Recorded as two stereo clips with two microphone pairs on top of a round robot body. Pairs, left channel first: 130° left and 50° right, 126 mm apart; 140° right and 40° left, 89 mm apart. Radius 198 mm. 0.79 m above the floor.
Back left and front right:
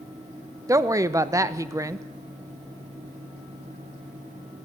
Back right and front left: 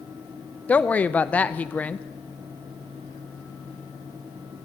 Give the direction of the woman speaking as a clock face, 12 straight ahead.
3 o'clock.